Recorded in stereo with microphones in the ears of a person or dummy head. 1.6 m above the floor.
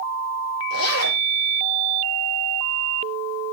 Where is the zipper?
85° left, 5 m.